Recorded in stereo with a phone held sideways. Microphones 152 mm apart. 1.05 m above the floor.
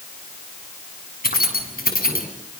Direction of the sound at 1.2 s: 80° left.